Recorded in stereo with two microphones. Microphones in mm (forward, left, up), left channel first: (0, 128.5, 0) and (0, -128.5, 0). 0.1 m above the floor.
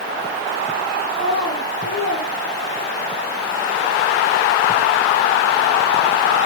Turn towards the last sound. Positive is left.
turn(degrees=45)  # may be behind; listen again after turning